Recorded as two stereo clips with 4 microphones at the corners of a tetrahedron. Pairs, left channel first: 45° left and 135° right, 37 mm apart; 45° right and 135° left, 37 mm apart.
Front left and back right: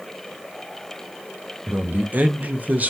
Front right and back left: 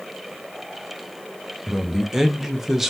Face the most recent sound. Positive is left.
turn(degrees=-145)